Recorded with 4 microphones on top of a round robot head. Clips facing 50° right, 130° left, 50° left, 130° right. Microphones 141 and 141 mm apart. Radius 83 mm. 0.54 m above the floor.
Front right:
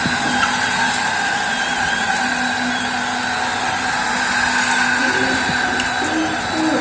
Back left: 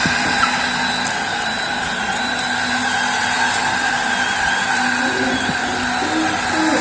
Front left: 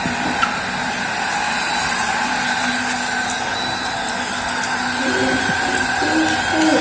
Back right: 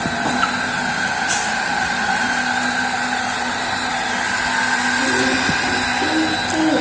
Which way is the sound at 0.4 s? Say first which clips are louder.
Even, even; 15° left.